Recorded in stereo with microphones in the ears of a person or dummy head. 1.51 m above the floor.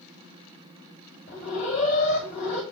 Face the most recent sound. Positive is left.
turn(degrees=30)  # may be behind; listen again after turning